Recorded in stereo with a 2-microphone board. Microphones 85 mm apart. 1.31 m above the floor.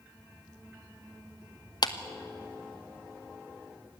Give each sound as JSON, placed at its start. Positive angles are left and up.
{"t": 1.8, "sound": "a clap", "side_deg": 50, "distance_m": 1.2}